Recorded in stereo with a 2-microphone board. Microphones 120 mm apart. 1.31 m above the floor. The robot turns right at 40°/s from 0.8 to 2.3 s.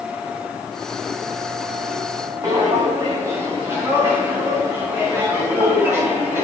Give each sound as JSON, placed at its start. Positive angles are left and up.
{"t": 2.4, "sound": "footsteps", "side_deg": -30, "distance_m": 3.0}